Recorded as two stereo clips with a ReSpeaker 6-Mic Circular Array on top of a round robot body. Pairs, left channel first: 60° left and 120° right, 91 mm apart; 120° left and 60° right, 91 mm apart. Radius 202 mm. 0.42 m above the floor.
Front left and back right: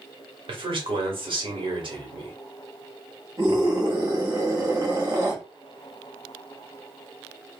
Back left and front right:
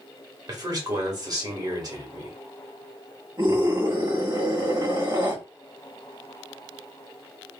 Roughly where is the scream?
Right.